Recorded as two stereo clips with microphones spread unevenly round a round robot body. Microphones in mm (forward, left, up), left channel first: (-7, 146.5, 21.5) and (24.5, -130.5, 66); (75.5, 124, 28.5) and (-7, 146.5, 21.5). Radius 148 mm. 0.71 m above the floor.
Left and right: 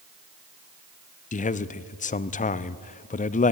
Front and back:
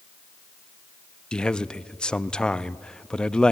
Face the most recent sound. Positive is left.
turn(degrees=65)